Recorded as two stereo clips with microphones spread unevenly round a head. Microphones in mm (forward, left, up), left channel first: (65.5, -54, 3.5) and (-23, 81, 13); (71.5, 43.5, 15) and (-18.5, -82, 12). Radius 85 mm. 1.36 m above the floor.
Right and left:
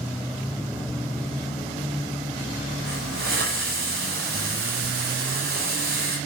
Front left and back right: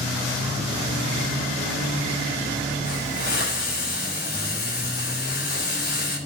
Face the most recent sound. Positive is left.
turn(degrees=95)